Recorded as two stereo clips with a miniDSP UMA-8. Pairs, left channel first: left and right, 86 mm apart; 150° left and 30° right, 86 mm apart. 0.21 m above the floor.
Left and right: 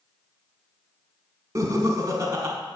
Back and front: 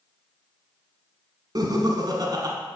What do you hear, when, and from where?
1.6 s laughter: 50° right, 1.5 m